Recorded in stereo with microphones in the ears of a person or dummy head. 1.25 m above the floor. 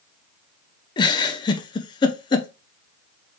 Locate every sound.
1.0 s a giggle: 25° left (ahead or behind), 0.5 m